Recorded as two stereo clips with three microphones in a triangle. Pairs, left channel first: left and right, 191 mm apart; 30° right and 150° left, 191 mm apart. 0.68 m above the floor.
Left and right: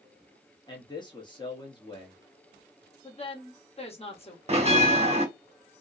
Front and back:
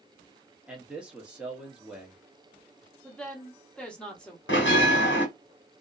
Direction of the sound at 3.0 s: 50° left.